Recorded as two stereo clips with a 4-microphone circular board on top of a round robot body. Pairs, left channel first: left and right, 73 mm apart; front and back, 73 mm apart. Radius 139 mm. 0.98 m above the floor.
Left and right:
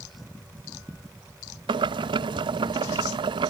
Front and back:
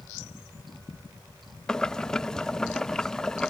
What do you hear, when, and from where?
1.7 s boiling: 80° right